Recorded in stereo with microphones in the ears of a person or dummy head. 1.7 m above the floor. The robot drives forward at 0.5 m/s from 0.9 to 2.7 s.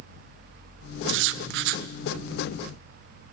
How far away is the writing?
About 0.7 m.